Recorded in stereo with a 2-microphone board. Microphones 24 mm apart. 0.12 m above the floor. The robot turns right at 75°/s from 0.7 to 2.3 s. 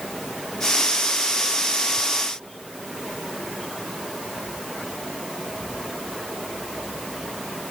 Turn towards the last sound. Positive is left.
No sound to turn to.